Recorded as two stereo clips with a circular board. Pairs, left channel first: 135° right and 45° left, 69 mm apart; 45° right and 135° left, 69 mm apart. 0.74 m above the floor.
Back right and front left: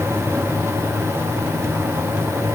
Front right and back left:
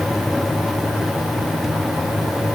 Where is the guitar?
No guitar in this recording.